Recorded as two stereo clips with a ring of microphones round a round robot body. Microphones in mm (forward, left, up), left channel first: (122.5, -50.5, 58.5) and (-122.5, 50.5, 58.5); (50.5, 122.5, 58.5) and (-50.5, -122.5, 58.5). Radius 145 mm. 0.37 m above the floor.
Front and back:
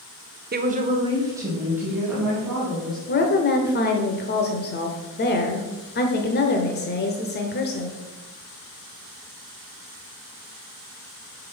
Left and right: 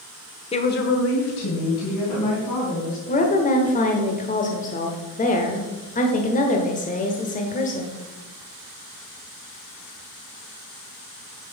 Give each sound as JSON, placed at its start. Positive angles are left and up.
{"t": 0.5, "sound": "a woman speaking", "azimuth_deg": 125, "distance_m": 1.0}
{"t": 3.1, "sound": "a woman speaking", "azimuth_deg": 15, "distance_m": 1.1}